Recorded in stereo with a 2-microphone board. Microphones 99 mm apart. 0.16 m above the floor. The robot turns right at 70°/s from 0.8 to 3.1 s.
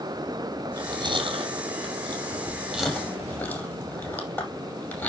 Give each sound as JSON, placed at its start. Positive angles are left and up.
{"t": 0.7, "sound": "chewing", "side_deg": -40, "distance_m": 5.5}